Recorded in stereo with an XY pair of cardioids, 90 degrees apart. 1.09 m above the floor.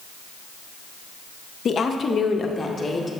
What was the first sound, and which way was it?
A woman speaking, 55° left.